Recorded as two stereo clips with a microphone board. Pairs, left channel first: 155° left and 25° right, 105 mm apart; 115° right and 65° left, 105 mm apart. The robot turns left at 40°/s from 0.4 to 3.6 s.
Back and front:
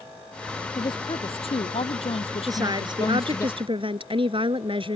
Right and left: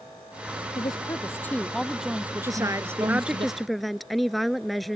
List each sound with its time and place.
0.7 s a woman speaking: 155° right; by 3.5 s 95° left
2.5 s a woman speaking: 20° left; by 5.0 s 25° right